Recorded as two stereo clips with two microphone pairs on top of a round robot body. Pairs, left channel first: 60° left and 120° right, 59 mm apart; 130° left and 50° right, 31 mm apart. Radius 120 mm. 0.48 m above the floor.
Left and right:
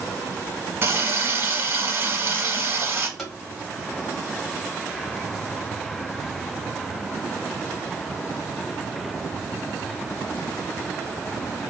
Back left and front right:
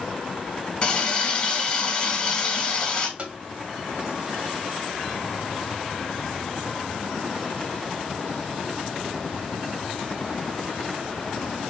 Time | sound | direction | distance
0.8 | a running tap | 165° right | 1.5 m
3.2 | tapping | 35° right | 1.3 m